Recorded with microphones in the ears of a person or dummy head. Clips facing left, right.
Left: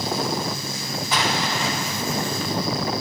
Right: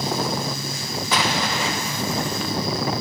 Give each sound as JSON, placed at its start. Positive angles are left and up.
{"t": 1.1, "sound": "an explosion", "side_deg": -55, "distance_m": 1.2}